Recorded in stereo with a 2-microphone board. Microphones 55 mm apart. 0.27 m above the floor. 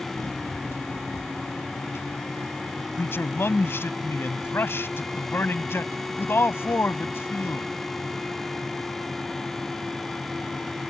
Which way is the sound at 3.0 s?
50° left (ahead or behind).